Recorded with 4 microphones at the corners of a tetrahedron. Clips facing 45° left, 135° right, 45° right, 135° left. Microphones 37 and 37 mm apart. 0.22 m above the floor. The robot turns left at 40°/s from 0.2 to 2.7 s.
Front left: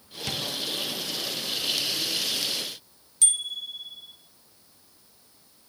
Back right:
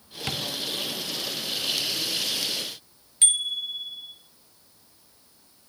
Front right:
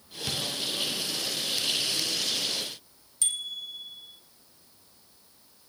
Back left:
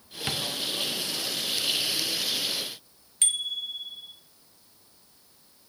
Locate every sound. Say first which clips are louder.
0.3 s tapping: back right 1 dB, back left 2 dB; 170° left, 2.5 m; by 0.5 s 160° left, 2.5 m
3.2 s a bicycle bell: back right 4 dB, back left 4 dB; 175° left, 3 m